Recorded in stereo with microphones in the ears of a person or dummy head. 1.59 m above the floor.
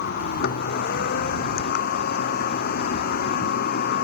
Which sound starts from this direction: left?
A machine running, at 0.0 s.